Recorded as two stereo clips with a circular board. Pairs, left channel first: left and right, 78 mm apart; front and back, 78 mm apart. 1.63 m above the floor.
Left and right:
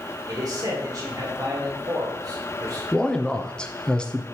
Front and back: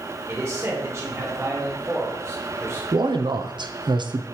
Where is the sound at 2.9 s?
170° left, 0.6 m.